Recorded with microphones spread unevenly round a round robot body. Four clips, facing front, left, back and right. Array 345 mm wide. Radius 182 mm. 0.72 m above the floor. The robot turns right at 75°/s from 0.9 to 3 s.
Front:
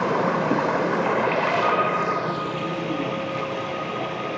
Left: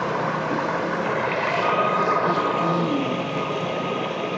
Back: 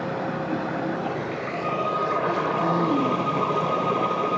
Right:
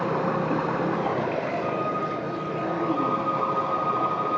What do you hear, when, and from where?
0.0 s running water: 5° right, 1.3 m; by 4.4 s 150° left, 1.3 m
1.6 s a violin: 50° left, 3.5 m; by 4.4 s 150° left, 3.5 m